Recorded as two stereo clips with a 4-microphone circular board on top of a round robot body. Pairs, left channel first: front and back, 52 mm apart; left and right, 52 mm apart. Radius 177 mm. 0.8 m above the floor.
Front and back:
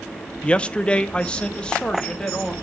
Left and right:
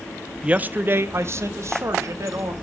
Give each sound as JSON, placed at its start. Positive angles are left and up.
{"t": 0.4, "sound": "a man speaking", "azimuth_deg": -45, "distance_m": 0.8}